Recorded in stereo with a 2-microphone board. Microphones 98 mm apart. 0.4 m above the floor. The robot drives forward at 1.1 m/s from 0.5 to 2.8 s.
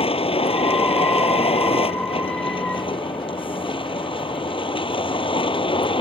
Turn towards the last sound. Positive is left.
turn(degrees=65)  # may be behind; listen again after turning